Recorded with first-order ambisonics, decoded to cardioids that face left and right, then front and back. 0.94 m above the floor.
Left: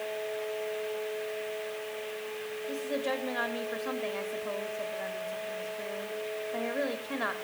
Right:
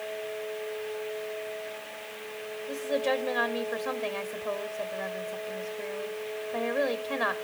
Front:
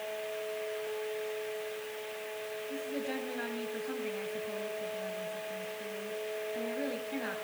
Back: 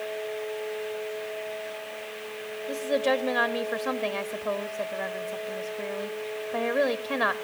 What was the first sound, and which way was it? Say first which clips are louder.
A woman speaking: right 5 dB, back 15 dB; 170° right.